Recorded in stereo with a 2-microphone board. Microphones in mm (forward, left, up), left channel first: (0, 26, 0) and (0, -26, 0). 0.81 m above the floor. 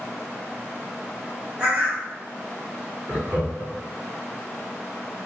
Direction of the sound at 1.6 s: 35° right (ahead or behind).